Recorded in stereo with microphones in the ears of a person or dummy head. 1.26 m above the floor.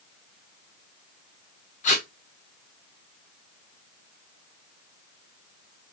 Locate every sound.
1.8 s tape being pulled: 40° left (ahead or behind), 0.9 m